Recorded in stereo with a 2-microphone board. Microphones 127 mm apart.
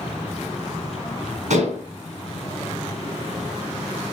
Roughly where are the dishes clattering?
Right.